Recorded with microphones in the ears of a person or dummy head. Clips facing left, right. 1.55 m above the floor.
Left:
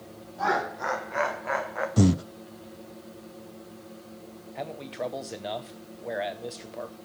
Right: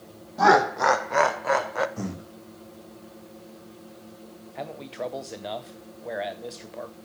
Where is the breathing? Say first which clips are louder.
Left 12 dB; 55° left (ahead or behind), 0.6 m.